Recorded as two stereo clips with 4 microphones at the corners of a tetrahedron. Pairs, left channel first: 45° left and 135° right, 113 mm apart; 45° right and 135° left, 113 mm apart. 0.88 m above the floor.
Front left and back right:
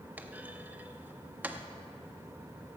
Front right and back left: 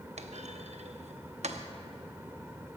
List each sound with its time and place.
0.2 s a clunk: 150° left, 0.7 m